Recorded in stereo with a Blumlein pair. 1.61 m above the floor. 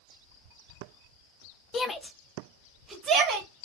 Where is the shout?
20° left, 0.7 m; by 3.5 s 25° right, 1.3 m.